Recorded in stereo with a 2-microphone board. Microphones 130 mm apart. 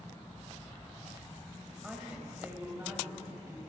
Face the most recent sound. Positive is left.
turn(degrees=-25)  # may be behind; listen again after turning